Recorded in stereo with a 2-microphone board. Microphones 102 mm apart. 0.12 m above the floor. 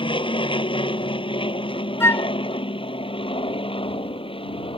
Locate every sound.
0.0 s an aircraft: 55° left (ahead or behind); by 4.8 s 60° left (ahead or behind)
2.0 s a flute: 25° left (ahead or behind)